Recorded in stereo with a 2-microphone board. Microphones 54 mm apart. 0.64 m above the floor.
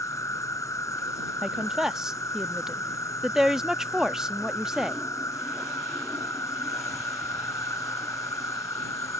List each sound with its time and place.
0.0 s an insect: 85° left
1.4 s a woman speaking: 10° right (ahead or behind)